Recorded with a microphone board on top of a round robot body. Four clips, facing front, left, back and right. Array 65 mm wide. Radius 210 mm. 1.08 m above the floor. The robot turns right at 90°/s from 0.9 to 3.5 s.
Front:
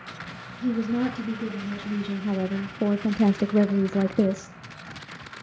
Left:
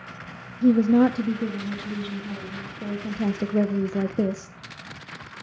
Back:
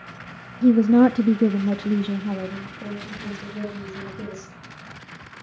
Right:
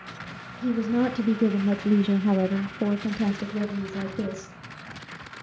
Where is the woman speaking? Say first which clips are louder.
Left 7 dB, back 10 dB; 150° left, 0.7 m; by 4.6 s 25° left, 0.7 m.